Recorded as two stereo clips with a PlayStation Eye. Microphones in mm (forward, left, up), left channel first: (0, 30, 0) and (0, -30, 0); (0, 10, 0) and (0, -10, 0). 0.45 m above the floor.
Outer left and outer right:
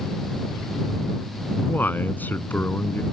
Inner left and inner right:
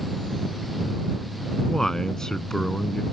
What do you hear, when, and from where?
1.7 s a man speaking: 30° left (ahead or behind)